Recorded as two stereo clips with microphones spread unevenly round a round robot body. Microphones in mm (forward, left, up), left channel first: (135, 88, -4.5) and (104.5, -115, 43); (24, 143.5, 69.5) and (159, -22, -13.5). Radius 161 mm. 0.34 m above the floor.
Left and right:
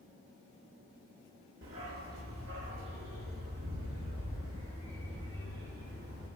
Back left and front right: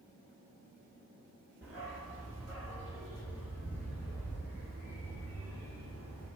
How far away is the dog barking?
About 2 m.